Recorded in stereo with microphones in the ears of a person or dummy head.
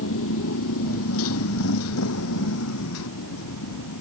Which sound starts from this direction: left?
A motorcycle, at 0.0 s.